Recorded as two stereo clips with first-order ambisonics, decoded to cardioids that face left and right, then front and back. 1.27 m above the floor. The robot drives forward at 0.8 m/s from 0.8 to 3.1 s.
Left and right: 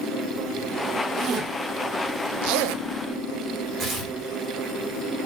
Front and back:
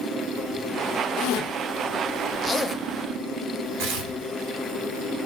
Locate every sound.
1.2 s a zipper: 30° right, 1.3 m; by 2.8 s 110° right, 0.7 m
3.8 s tearing paper: 155° right, 1.9 m